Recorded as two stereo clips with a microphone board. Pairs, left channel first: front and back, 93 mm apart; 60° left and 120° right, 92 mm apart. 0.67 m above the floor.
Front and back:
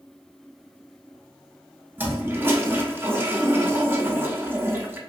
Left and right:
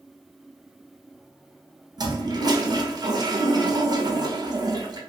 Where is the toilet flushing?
125° right, 0.5 m.